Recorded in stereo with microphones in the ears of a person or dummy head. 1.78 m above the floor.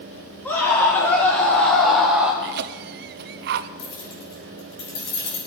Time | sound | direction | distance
0.5 | a scream | 10° left (ahead or behind) | 4 m
2.4 | a cough | 55° right (ahead or behind) | 0.8 m
3.8 | keys jangling | 60° left (ahead or behind) | 5 m